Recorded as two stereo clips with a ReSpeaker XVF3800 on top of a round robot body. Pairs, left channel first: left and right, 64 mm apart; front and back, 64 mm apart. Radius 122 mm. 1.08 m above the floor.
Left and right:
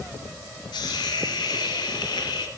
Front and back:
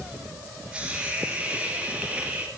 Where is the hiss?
100° left, 1.7 m.